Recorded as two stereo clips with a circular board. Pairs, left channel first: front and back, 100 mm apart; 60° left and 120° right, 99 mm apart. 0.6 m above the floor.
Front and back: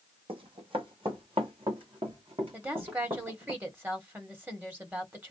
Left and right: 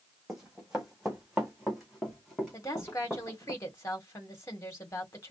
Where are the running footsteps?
155° left, 1.9 m; by 3.5 s 145° left, 3.5 m.